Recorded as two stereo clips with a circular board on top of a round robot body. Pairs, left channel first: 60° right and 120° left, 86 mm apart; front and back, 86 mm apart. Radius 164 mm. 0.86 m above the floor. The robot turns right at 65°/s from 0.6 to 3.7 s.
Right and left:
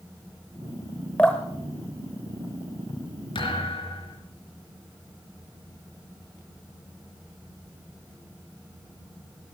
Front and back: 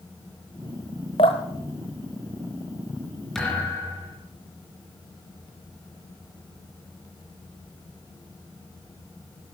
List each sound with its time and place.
1.2 s dripping: 15° left, 0.7 m; by 3.1 s 135° left, 0.7 m
3.4 s a thud: 85° right, 4 m; by 4.2 s 65° right, 4 m